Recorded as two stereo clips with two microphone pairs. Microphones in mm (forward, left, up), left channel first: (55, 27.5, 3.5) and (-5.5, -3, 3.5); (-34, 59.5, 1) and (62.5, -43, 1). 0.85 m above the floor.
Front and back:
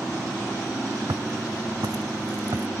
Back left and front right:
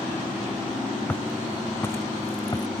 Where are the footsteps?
145° right; by 2.7 s 165° right.